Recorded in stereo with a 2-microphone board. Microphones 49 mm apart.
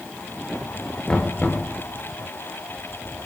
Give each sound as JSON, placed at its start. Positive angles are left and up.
{"t": 1.1, "sound": "knocking", "side_deg": 25, "distance_m": 3.0}